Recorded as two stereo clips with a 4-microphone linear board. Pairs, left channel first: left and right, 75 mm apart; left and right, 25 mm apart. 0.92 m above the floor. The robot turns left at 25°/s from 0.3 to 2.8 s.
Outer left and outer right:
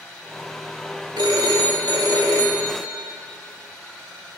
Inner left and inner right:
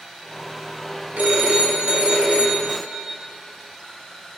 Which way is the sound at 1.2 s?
95° right.